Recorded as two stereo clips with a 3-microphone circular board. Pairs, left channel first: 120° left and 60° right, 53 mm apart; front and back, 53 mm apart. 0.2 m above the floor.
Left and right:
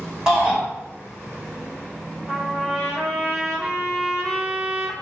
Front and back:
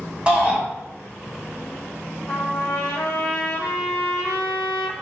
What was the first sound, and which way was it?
A shout, 135° right.